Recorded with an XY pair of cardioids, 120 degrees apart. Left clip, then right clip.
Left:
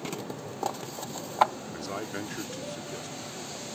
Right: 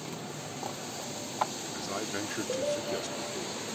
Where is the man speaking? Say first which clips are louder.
Right 1 dB; 15° left; by 3.8 s 50° right.